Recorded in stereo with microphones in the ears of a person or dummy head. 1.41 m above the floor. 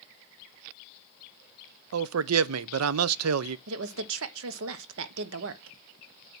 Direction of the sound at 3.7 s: 70° right (ahead or behind).